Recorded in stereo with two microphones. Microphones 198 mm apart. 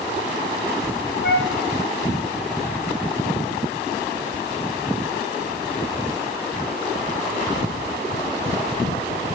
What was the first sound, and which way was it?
A flute, 70° left (ahead or behind).